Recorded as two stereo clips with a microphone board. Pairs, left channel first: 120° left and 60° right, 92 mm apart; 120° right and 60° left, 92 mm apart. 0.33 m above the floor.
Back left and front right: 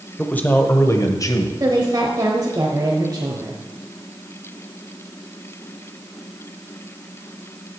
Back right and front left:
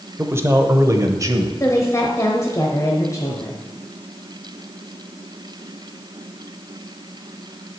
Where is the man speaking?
60° left, 0.9 m; by 1.5 s 95° left, 1.2 m.